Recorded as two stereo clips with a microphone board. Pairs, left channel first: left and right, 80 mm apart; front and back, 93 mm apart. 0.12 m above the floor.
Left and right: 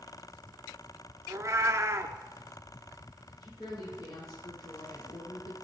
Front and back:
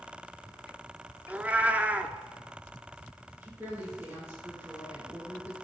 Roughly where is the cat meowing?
Behind right.